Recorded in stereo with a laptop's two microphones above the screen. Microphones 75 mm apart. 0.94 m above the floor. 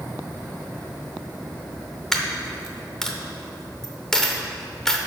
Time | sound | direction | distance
2.1 | a dropped coin | 5° left (ahead or behind) | 0.7 m